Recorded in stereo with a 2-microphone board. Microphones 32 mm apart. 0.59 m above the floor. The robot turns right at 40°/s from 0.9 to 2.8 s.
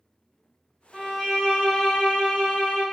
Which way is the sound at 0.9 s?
50° left.